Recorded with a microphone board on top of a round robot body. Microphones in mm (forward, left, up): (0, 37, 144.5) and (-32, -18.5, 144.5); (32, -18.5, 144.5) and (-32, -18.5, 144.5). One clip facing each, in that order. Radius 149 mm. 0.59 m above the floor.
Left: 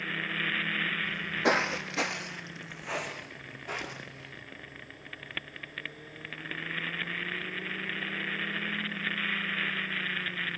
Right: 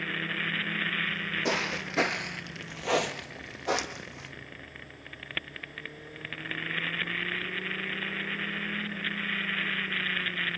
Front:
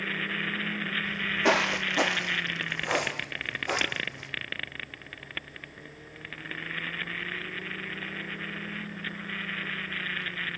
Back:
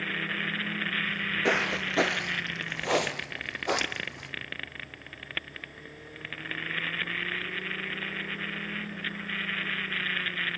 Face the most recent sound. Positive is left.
turn(degrees=-140)